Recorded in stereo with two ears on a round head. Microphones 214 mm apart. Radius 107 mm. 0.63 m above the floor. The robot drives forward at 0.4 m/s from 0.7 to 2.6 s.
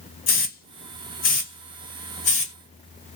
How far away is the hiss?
About 1.3 m.